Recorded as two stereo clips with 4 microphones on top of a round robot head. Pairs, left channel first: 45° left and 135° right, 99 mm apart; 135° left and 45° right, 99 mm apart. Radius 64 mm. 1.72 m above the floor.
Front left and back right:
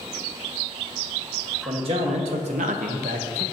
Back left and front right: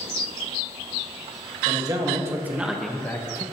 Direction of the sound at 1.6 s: 95° right.